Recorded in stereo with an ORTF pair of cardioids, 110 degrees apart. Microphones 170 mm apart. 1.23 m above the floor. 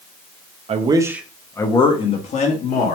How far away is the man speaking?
About 0.6 m.